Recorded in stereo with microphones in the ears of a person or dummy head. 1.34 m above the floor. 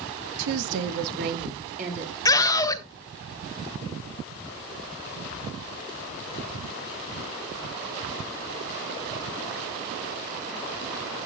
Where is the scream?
20° left (ahead or behind), 1.5 m.